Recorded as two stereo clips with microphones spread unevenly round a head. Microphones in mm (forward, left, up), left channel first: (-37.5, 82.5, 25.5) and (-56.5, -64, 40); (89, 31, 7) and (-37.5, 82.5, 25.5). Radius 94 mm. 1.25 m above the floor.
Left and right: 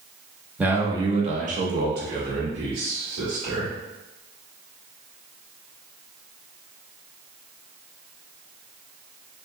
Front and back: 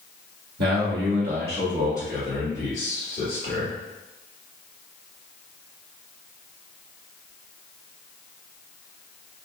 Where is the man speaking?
Straight behind, 0.9 m; by 3.8 s 85° right, 2.0 m.